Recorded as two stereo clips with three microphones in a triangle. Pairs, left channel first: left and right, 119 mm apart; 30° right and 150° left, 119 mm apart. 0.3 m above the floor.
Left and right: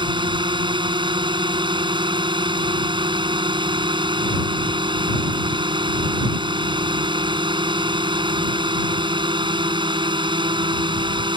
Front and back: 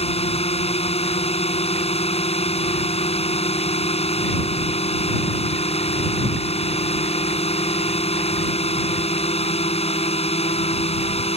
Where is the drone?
45° right.